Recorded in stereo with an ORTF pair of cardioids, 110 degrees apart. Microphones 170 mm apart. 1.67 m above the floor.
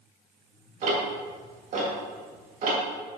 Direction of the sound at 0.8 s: 50° right.